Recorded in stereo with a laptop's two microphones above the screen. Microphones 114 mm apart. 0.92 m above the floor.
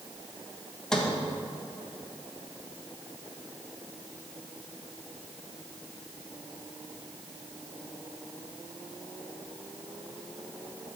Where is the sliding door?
5° left (ahead or behind), 1.1 m.